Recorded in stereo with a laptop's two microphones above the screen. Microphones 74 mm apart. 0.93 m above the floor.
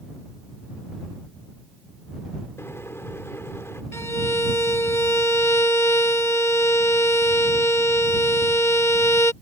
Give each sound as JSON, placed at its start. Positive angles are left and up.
{"t": 2.6, "sound": "a microwave", "side_deg": 35}
{"t": 3.9, "sound": "a violin", "side_deg": 35}